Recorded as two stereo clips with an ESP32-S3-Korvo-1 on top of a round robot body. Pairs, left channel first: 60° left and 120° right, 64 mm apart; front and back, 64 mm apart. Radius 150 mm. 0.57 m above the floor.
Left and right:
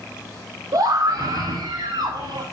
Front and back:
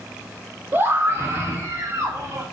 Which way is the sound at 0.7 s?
125° right.